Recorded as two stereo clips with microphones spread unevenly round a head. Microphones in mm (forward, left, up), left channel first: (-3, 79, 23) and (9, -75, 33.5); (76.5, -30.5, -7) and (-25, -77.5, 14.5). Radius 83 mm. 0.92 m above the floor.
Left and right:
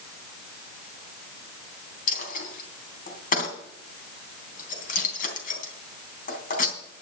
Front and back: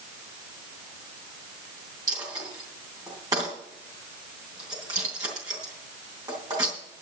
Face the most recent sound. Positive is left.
turn(degrees=135)